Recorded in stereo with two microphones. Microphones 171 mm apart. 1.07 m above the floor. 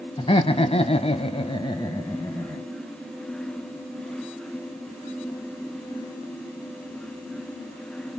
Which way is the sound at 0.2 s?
30° left (ahead or behind).